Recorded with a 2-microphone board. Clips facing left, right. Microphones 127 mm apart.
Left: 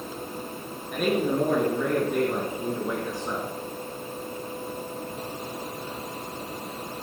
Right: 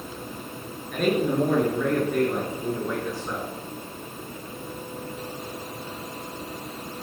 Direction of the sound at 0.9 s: 5° left (ahead or behind).